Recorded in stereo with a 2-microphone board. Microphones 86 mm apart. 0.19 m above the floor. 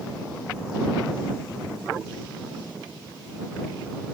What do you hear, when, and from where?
Only background noise.